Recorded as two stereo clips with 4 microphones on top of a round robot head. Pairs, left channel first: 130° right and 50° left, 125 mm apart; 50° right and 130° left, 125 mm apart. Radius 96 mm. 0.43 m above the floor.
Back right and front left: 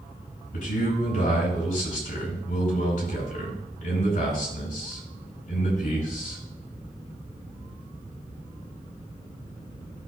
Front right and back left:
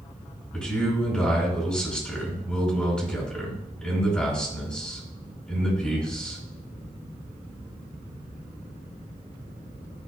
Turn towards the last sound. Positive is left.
turn(degrees=-130)